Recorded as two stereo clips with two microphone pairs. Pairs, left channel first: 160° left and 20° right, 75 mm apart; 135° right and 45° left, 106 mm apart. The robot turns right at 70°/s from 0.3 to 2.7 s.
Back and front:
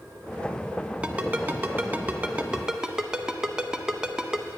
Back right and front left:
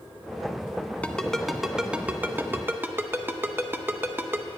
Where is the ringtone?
70° right, 0.6 m; by 4.5 s 45° left, 0.6 m.